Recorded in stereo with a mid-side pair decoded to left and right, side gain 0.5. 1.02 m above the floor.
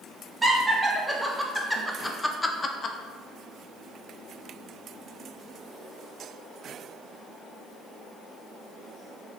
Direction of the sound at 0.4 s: 10° right.